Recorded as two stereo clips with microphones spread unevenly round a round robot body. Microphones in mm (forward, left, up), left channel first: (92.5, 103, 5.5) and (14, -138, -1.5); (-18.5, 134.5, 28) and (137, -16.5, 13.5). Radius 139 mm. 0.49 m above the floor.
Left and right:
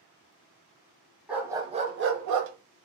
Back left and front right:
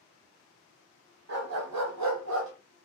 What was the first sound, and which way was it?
A dog barking, 20° right.